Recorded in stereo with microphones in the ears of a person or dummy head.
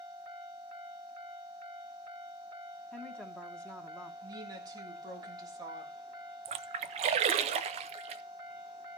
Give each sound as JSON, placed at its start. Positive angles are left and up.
{"t": 2.9, "sound": "a woman speaking", "side_deg": 5, "distance_m": 1.2}
{"t": 4.2, "sound": "a woman speaking", "side_deg": -20, "distance_m": 3.0}
{"t": 6.5, "sound": "a splash", "side_deg": -35, "distance_m": 0.7}